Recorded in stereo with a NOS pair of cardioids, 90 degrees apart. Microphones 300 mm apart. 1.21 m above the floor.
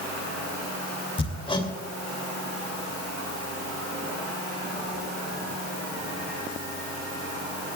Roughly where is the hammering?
Ahead.